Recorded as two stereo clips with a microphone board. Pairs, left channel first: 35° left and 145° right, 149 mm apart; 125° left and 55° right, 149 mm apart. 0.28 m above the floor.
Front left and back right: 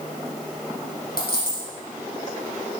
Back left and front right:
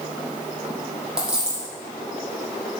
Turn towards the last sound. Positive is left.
turn(degrees=30)